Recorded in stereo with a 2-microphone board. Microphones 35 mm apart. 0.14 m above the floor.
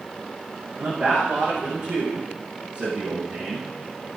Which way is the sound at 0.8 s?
25° right (ahead or behind).